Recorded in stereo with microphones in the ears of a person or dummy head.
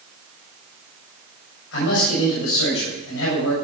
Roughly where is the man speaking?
Left.